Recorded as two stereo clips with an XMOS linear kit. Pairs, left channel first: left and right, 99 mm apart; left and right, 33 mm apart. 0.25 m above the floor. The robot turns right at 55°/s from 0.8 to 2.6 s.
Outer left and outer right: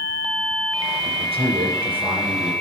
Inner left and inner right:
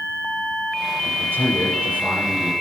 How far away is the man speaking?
About 5.5 m.